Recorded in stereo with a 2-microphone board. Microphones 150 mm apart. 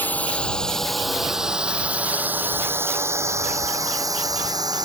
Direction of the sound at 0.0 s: 10° left (ahead or behind).